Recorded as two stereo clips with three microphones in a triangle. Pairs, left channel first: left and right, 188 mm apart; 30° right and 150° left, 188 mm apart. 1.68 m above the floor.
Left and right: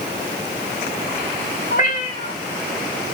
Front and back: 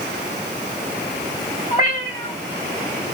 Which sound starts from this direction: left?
A cat meowing, at 1.7 s.